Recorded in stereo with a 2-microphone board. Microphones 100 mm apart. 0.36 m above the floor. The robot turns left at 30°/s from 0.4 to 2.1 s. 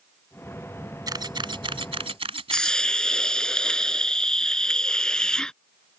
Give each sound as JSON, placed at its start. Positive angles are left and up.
{"t": 1.1, "sound": "a camera shutter", "side_deg": -40}
{"t": 2.5, "sound": "a hiss", "side_deg": 5}